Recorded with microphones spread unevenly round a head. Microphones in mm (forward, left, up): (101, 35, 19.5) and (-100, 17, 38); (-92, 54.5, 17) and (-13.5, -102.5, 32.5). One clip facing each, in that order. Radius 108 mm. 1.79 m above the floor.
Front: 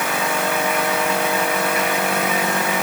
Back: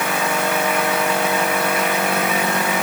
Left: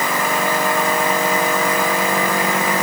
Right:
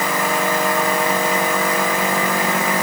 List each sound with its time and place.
Only background noise.